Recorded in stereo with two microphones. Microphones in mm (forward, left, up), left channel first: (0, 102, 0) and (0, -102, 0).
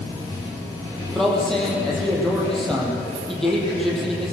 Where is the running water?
15° left (ahead or behind), 9 m.